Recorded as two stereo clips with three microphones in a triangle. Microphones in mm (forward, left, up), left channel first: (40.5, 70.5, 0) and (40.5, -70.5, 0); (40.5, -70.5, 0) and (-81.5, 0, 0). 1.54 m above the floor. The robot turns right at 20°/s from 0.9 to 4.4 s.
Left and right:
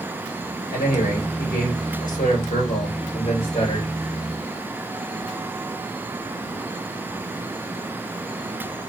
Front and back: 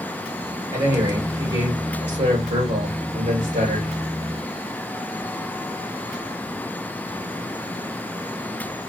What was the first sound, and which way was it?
A man speaking, 85° left.